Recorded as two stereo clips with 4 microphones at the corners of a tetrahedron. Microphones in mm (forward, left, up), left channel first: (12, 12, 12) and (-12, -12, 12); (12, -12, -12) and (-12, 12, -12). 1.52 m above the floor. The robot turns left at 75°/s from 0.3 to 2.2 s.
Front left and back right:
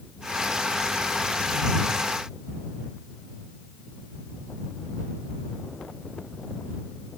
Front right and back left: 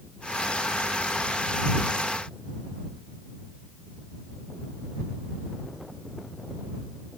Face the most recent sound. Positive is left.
No sound to turn to.